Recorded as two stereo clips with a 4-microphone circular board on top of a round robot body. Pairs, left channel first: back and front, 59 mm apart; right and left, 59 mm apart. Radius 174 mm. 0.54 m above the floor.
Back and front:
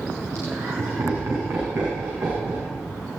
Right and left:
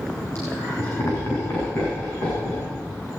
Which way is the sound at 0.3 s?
40° right.